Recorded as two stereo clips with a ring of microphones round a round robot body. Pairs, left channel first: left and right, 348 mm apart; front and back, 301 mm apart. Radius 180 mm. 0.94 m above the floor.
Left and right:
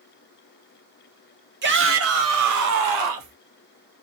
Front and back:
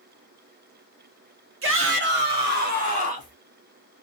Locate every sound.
1.6 s a shout: 145° right, 1.2 m; by 3.4 s 110° right, 1.7 m